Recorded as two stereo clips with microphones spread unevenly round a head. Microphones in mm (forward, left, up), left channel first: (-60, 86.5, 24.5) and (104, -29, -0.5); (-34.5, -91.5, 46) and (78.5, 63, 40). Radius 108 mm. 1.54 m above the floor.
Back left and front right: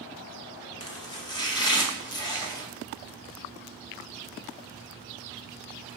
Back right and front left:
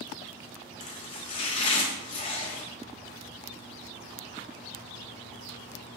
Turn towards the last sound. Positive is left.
turn(degrees=-170)